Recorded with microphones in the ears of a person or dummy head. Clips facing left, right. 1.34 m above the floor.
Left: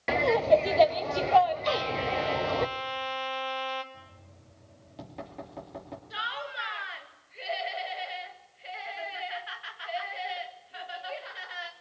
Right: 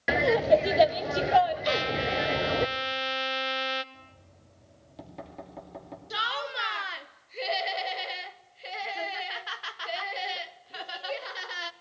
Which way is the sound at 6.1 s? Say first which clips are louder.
Right 6 dB; 55° right (ahead or behind).